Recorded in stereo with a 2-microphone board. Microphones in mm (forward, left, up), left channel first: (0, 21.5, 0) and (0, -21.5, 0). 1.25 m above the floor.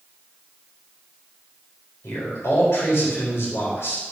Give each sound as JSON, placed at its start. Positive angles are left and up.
{"t": 2.0, "sound": "a man speaking", "side_deg": 70, "distance_m": 5.0}